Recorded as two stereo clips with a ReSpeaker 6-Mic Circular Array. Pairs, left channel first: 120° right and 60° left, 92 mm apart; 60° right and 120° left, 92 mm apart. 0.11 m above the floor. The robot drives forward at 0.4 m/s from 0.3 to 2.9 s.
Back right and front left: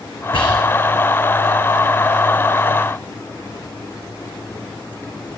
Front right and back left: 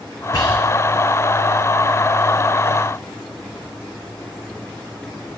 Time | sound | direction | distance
0.3 | whispering | 105° right | 6 m